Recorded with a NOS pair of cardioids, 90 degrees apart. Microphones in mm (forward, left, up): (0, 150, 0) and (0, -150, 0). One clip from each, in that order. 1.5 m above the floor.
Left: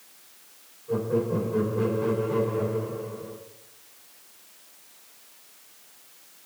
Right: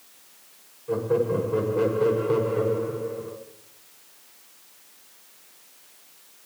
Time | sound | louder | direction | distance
0.9 | laughter | right 3 dB | 55° right | 6 m